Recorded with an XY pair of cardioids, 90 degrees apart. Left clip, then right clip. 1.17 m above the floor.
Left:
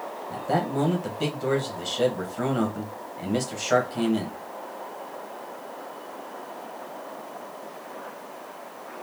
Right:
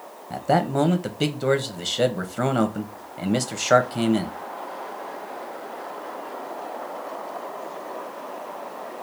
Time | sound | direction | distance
0.3 | a man speaking | 50° right | 0.9 m